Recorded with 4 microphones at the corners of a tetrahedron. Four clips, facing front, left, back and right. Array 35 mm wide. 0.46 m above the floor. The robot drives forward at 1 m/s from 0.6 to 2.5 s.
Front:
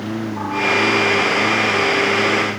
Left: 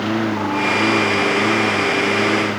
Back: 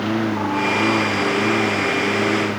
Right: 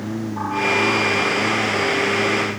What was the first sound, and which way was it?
A lawn mower, 120° left.